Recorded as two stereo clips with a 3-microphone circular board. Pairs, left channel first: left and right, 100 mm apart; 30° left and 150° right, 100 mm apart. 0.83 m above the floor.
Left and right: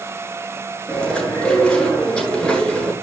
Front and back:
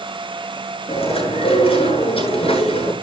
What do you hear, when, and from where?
0.9 s chewing: 10° left, 9 m